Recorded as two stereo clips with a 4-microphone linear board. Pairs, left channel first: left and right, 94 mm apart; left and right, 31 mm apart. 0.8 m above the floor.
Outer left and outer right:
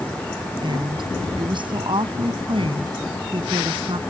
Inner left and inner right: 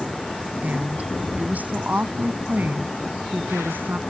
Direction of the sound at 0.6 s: 55° right (ahead or behind).